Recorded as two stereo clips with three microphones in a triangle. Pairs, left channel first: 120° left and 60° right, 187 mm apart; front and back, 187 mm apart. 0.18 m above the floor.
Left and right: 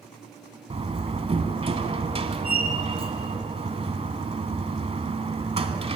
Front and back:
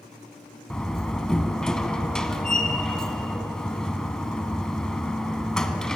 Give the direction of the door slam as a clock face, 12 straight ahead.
3 o'clock.